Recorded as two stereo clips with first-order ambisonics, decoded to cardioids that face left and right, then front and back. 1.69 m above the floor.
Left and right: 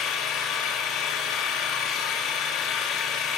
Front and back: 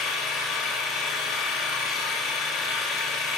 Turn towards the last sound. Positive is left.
turn(degrees=45)